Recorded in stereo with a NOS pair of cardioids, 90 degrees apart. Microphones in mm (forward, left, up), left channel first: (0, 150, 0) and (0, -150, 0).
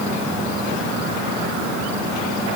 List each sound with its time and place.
Only background noise.